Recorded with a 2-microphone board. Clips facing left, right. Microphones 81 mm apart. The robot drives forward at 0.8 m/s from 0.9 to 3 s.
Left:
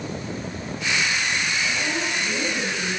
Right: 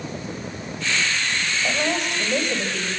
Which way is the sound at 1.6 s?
65° right (ahead or behind).